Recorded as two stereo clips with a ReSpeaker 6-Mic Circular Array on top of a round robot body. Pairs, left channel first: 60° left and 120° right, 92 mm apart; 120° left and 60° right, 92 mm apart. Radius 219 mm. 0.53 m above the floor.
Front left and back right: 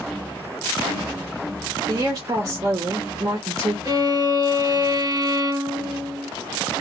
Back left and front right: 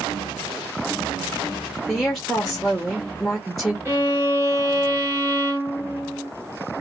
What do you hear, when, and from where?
1.9 s a woman speaking: 155° right, 1.1 m
3.9 s a violin: 115° right, 1.8 m